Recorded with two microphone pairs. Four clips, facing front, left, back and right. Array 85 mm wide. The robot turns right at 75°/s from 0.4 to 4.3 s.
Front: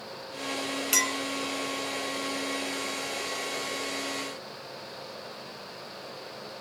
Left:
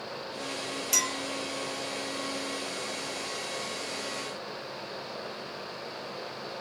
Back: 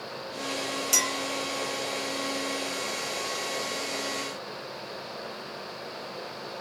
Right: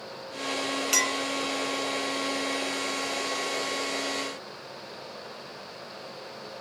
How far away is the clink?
About 0.5 m.